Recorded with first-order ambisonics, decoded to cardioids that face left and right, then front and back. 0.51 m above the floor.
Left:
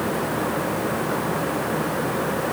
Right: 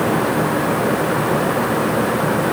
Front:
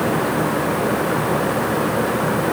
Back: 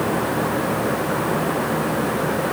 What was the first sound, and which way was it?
Only background noise.